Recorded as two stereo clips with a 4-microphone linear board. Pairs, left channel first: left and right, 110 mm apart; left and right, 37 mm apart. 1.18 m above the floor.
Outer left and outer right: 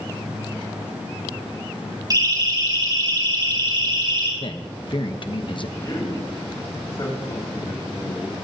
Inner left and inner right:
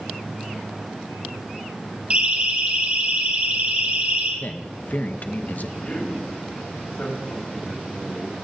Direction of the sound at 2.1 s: 35° right (ahead or behind).